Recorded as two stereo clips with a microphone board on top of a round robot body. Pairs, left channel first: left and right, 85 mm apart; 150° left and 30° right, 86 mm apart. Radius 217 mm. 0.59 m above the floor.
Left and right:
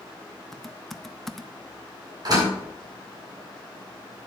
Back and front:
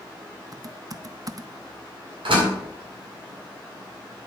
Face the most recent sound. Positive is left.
turn(degrees=-45)